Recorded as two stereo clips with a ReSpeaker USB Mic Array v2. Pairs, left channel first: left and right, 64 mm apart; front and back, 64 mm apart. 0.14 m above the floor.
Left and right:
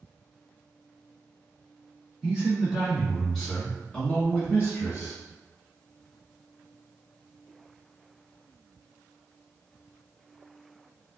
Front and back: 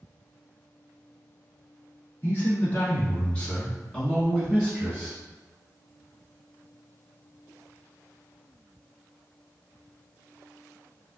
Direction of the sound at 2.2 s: 25° right.